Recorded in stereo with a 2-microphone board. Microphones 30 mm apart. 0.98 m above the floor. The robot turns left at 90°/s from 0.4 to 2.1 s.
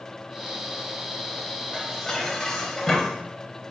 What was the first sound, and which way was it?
Dishes clattering, 150° right.